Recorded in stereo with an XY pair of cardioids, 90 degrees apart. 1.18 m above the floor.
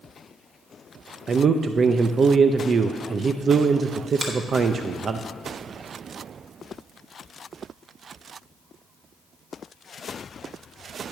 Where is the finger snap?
40° right, 3 m.